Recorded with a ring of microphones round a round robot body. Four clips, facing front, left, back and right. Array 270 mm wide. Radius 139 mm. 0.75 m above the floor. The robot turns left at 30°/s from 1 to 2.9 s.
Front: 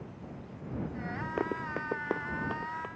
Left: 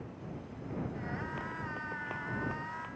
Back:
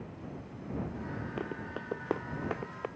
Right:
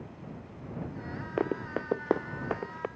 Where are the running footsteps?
70° right; by 2.9 s 110° right.